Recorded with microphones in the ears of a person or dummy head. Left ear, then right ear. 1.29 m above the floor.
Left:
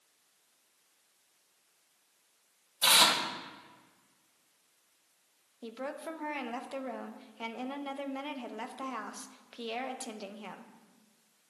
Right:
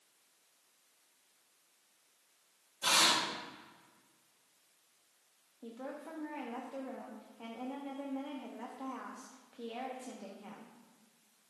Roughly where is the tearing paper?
Left.